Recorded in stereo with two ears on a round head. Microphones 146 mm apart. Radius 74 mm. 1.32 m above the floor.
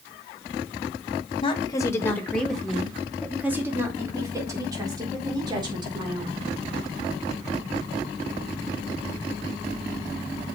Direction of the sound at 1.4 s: 30° left (ahead or behind).